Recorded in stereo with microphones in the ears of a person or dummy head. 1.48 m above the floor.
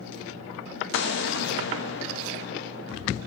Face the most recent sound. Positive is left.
turn(degrees=60)  # may be behind; listen again after turning